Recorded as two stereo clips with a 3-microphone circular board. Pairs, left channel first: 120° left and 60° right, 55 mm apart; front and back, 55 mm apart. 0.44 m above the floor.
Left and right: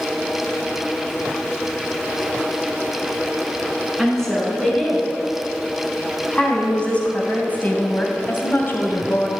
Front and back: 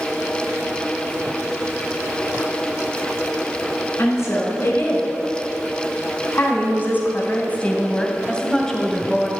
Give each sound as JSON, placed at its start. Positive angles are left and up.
{"t": 4.0, "sound": "a woman speaking", "azimuth_deg": 35, "distance_m": 4.5}